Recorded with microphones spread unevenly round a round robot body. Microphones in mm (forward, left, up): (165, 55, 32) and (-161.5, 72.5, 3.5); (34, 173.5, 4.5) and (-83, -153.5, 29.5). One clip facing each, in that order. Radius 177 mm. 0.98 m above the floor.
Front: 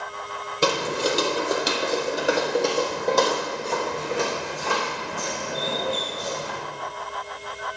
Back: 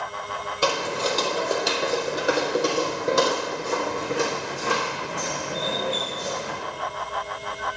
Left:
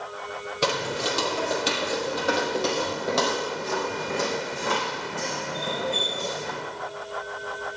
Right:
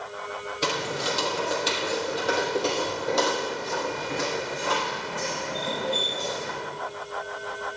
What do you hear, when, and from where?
0.6 s footsteps: 50° left, 1.8 m; by 6.6 s 120° left, 4.5 m